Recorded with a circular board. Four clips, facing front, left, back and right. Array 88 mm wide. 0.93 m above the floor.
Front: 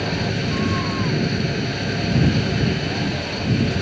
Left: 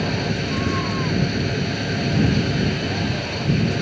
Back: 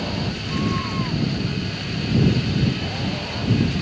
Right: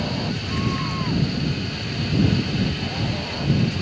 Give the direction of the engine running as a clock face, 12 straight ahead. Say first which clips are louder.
Left 3 dB, front 4 dB; 10 o'clock.